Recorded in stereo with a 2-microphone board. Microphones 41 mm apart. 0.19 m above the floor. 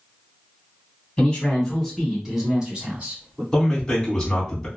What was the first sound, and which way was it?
A man speaking, 25° left (ahead or behind).